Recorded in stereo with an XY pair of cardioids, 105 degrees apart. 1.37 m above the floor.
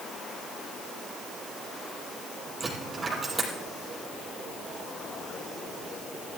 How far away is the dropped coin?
About 6 m.